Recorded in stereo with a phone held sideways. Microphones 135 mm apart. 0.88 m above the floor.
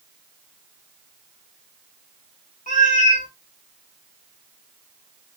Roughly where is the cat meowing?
Left.